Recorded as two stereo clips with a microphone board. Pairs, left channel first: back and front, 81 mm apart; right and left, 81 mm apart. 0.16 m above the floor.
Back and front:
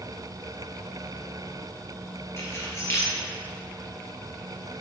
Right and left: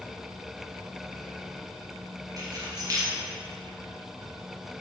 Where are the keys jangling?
125° left, 2.5 m.